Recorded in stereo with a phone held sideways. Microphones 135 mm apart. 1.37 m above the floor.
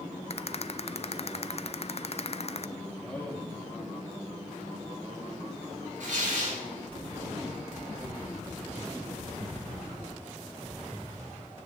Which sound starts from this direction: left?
A rattle, at 0.3 s.